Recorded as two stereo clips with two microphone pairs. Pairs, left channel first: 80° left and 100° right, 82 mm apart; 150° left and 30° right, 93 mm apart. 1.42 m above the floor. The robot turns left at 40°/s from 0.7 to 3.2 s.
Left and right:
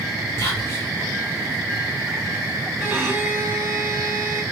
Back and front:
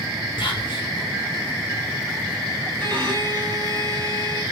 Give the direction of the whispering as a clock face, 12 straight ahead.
8 o'clock.